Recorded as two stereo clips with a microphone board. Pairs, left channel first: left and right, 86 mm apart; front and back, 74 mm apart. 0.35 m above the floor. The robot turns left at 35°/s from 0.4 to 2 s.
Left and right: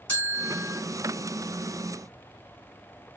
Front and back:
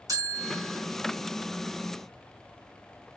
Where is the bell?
160° left, 3.5 m; by 0.8 s 145° left, 3.5 m.